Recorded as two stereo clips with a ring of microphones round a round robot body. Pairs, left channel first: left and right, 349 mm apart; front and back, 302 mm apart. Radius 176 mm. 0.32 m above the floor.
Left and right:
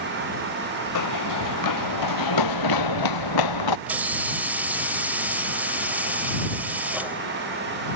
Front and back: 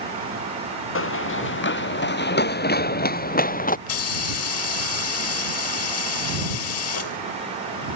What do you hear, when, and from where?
0.9 s running footsteps: 50° left; by 3.8 s 65° left
3.9 s a hiss: 5° right